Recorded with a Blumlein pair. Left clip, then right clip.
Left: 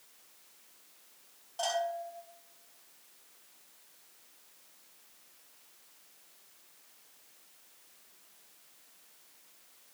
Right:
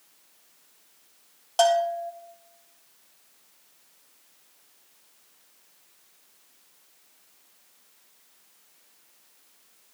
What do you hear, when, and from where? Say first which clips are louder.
1.6 s a bell: right 12 dB; 40° right, 5 m